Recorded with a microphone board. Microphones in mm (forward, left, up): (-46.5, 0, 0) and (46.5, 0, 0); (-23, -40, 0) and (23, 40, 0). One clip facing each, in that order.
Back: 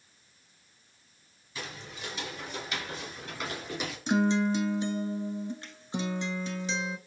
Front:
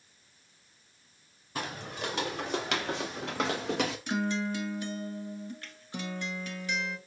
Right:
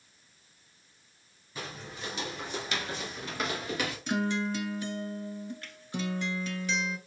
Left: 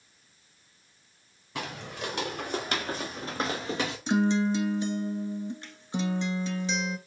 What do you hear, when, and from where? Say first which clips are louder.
1.6 s footsteps: front 6 dB, left 5 dB; 35° left, 1.9 m; by 4.0 s 5° right, 1.9 m
4.1 s a guitar: back 5 dB, left 6 dB; 120° left, 0.7 m